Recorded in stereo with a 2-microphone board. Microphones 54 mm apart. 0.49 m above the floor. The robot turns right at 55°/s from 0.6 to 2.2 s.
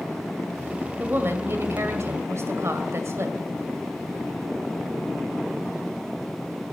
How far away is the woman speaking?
About 2.5 m.